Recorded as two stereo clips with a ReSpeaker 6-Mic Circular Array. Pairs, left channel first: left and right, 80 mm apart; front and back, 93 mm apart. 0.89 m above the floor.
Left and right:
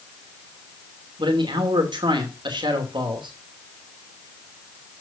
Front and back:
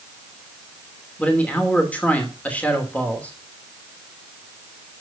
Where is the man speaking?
75° right, 2.5 m.